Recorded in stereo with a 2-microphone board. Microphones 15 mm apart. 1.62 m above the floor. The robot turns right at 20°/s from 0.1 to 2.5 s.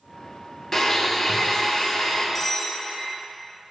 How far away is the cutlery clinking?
About 0.9 m.